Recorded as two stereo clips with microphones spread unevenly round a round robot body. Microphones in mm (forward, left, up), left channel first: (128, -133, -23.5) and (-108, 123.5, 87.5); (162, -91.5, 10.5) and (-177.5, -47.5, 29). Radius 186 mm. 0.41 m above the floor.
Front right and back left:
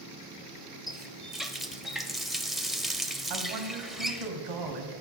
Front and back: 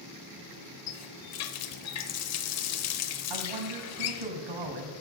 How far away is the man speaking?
About 3 m.